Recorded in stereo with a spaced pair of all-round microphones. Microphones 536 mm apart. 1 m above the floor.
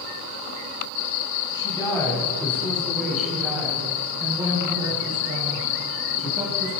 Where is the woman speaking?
10° left (ahead or behind), 6.5 m; by 6.7 s 15° right (ahead or behind), 9.5 m.